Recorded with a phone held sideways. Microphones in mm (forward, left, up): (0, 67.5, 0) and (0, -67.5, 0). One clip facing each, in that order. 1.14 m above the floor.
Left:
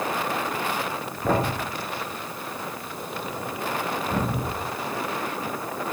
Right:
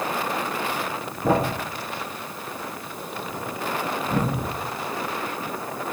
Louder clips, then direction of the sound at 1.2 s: Right 2 dB; 10° right (ahead or behind).